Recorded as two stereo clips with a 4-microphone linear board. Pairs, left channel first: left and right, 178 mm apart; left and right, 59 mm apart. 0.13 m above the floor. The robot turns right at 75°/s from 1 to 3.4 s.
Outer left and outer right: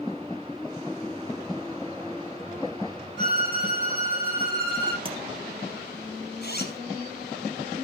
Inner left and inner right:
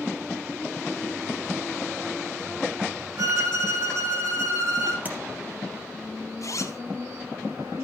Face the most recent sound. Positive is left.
turn(degrees=65)  # may be behind; listen again after turning